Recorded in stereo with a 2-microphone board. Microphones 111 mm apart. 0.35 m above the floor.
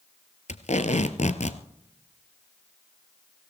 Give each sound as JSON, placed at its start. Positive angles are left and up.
{"t": 0.5, "sound": "tape being pulled", "side_deg": 80, "distance_m": 1.1}